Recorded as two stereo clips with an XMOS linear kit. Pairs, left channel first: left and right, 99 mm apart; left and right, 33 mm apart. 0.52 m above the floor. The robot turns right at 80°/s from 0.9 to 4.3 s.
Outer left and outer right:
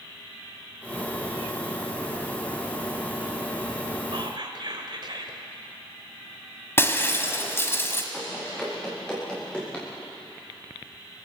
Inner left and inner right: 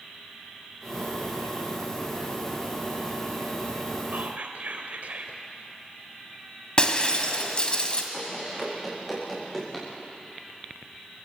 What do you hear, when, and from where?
4.1 s whispering: 60° right (ahead or behind), 2 m; by 5.4 s 55° right (ahead or behind), 2 m
6.8 s breaking glass: 25° left (ahead or behind), 1.8 m
8.1 s running footsteps: centre (ahead or behind), 8.5 m; by 9.9 s 10° left (ahead or behind), 8.5 m